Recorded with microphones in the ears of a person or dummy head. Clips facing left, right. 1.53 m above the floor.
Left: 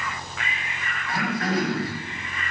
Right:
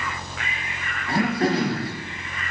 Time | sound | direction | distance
1.1 | throat clearing | 25° right (ahead or behind) | 4.5 m